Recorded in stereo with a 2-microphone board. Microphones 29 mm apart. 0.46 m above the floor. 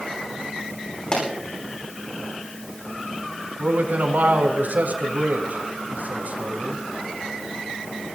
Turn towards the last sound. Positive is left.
turn(degrees=-75)  # may be behind; listen again after turning